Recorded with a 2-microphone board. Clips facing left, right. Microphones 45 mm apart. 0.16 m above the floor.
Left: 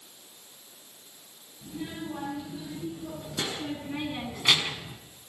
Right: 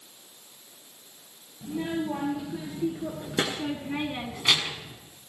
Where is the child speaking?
70° right (ahead or behind), 3 m; by 5.0 s 30° left (ahead or behind), 1.1 m.